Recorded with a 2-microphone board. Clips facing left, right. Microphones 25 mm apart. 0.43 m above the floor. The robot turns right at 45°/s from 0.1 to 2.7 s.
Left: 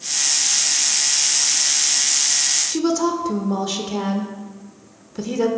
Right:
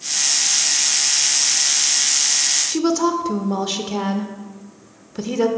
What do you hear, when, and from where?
2.7 s a woman speaking: 15° right (ahead or behind), 0.8 m